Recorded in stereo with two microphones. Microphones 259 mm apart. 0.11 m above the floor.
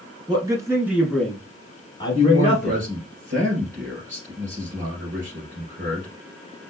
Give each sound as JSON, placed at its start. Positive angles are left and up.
{"t": 0.3, "sound": "a man speaking", "side_deg": -15, "distance_m": 1.5}
{"t": 2.1, "sound": "a man speaking", "side_deg": -50, "distance_m": 2.5}